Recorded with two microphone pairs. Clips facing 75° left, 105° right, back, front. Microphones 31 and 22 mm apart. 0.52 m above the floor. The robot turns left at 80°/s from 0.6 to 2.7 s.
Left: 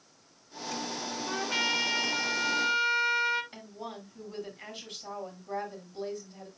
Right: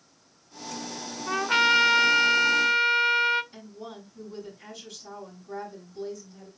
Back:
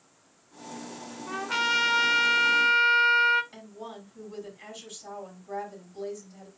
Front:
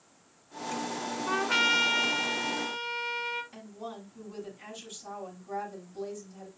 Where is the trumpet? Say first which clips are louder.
Right 9 dB, front 1 dB; 55° right, 0.9 m; by 3.4 s 170° right, 0.9 m.